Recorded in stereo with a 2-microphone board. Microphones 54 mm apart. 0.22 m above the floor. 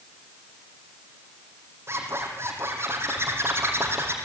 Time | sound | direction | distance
1.9 | a zipper | 50° right (ahead or behind) | 4.5 m